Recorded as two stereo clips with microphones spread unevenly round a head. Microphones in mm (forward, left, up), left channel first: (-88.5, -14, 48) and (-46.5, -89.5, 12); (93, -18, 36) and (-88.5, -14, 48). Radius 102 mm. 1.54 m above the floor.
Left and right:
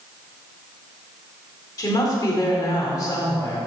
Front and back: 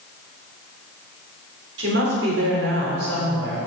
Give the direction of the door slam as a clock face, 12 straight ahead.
No door slam in this recording.